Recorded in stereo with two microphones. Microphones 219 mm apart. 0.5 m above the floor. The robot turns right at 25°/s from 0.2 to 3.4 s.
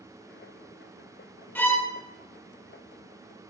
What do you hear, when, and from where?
1.6 s a violin: 10° left (ahead or behind), 1.2 m; by 1.9 s 15° left (ahead or behind), 1.2 m